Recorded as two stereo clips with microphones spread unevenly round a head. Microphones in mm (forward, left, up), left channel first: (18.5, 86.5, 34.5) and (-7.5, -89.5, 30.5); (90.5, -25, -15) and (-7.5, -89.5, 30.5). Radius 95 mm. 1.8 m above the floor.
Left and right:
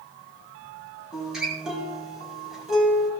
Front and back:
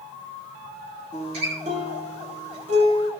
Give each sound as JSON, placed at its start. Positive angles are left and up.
{"t": 1.1, "sound": "a guitar", "azimuth_deg": 175, "distance_m": 5.0}